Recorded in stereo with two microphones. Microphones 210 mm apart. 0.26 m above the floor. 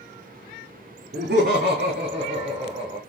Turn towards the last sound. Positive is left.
turn(degrees=-25)  # may be behind; listen again after turning